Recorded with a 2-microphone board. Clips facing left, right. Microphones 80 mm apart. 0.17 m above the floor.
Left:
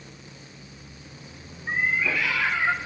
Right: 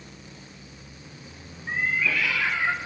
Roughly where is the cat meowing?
Left.